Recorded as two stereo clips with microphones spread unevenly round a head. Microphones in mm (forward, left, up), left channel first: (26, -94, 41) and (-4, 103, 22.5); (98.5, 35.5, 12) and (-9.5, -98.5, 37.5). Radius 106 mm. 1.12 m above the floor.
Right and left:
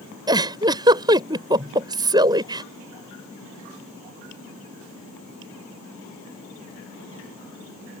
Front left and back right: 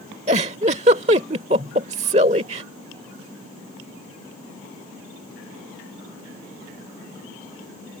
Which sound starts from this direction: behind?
A giggle, at 0.3 s.